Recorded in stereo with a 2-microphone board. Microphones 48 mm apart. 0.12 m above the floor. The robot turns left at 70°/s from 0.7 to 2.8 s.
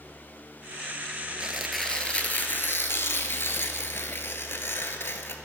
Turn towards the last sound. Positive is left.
turn(degrees=100)